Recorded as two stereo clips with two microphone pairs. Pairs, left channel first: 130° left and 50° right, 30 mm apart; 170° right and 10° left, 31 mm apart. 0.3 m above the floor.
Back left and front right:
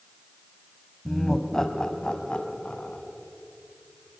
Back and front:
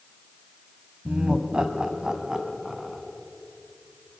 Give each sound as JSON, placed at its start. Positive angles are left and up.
{"t": 1.1, "sound": "laughter", "azimuth_deg": 45, "distance_m": 1.9}